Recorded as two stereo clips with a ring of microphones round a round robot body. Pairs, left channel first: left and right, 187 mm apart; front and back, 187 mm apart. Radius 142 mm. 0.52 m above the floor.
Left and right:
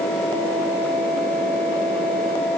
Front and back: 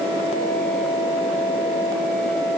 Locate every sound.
Only background noise.